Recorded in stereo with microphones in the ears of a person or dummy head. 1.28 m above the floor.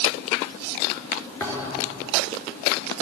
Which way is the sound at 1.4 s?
20° left (ahead or behind).